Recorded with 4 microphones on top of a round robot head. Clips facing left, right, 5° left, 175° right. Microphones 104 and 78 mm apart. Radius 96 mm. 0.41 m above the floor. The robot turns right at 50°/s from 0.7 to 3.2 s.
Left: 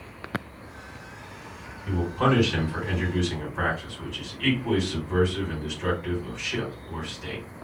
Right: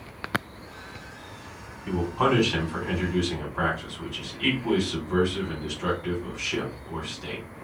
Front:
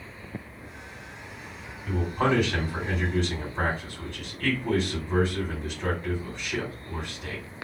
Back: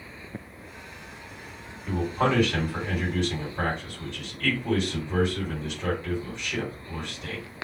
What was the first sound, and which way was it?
A man speaking, 90° right.